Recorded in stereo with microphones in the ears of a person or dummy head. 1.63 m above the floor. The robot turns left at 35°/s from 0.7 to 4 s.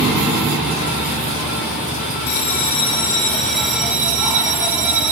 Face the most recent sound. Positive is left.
turn(degrees=-15)